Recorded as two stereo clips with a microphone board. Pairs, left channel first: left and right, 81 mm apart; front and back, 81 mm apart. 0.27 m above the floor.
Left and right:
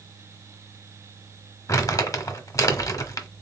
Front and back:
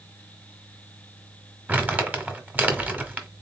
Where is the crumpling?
120° left, 1.1 m.